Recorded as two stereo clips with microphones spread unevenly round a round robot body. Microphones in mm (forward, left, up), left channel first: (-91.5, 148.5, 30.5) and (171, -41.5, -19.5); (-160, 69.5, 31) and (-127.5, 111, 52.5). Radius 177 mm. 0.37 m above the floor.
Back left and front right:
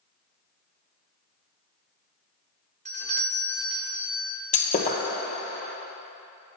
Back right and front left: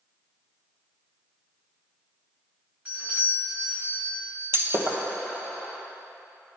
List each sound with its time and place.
2.9 s a doorbell: 30° right, 1.4 m
4.5 s breaking glass: 80° left, 1.4 m